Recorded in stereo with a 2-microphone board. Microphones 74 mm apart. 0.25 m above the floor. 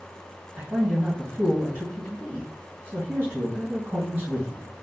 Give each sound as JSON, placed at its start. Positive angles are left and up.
{"t": 0.6, "sound": "a man speaking", "side_deg": -25, "distance_m": 1.7}